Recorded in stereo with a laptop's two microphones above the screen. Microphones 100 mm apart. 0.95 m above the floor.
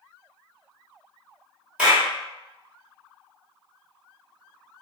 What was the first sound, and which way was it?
A clap, 10° right (ahead or behind).